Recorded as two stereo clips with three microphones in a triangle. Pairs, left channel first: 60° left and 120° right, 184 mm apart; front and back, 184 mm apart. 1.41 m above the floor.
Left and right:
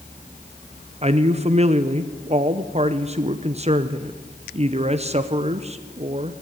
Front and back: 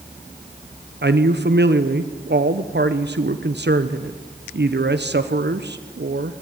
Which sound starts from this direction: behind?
A man speaking, at 1.0 s.